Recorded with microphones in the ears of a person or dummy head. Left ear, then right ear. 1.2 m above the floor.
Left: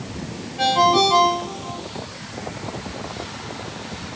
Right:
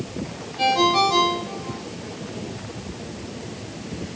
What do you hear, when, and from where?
0.6 s a ringtone: 10° left (ahead or behind), 4 m